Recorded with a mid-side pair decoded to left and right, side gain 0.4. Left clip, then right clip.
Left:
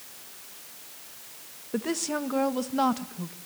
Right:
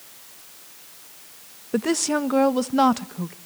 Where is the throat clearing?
No throat clearing in this recording.